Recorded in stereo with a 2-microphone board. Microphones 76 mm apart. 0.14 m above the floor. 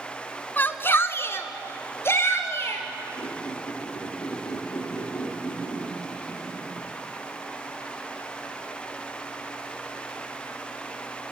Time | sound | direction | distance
0.6 | a shout | 25° left (ahead or behind) | 1.2 m
3.2 | a squeak | 70° left (ahead or behind) | 5.5 m